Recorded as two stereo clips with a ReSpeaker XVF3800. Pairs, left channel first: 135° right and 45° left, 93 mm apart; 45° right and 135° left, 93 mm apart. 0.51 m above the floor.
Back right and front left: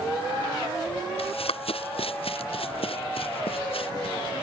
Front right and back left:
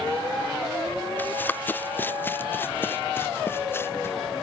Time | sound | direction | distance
1.2 | running footsteps | 115° right | ?